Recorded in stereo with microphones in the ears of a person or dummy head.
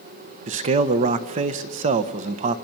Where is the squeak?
No squeak in this recording.